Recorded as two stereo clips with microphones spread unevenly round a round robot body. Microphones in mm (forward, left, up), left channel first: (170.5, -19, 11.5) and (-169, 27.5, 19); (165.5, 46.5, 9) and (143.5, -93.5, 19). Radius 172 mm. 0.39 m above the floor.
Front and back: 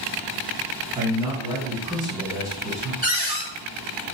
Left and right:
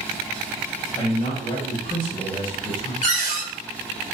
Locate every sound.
0.9 s a man speaking: 95° left, 1.3 m
3.0 s a cupboard door: 110° right, 0.9 m